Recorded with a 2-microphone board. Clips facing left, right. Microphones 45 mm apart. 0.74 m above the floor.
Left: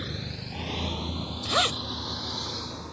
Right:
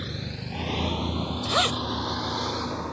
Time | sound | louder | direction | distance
0.0 | a vehicle | right 1 dB | centre (ahead or behind) | ?
1.4 | a zipper | right 1 dB | 5° right (ahead or behind) | ?